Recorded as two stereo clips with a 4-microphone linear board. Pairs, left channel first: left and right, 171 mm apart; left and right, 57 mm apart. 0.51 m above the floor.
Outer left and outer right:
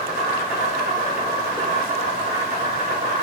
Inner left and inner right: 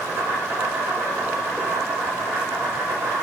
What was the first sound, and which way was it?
An insect, 70° right (ahead or behind).